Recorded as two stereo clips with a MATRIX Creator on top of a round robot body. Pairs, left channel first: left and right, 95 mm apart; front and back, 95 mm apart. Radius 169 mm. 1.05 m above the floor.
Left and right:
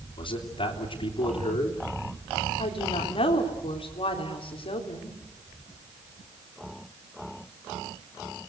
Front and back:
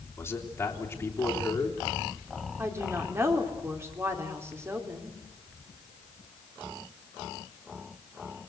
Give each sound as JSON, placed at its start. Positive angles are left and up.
{"t": 0.2, "sound": "a man speaking", "azimuth_deg": 65, "distance_m": 3.0}
{"t": 2.6, "sound": "a woman speaking", "azimuth_deg": 115, "distance_m": 4.0}